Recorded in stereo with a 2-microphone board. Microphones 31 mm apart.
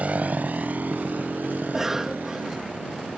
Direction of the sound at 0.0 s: 55° right (ahead or behind).